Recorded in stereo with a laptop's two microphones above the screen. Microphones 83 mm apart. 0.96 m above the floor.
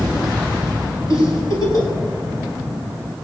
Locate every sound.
1.1 s a giggle: 45° left (ahead or behind), 6 m